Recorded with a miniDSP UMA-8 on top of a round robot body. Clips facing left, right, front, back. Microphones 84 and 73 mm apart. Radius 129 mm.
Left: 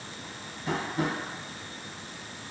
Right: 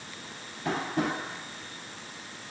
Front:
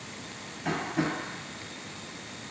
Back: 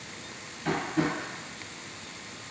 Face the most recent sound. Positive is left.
turn(degrees=-80)